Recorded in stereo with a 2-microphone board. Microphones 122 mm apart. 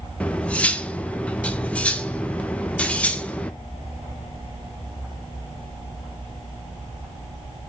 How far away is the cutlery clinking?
About 0.7 m.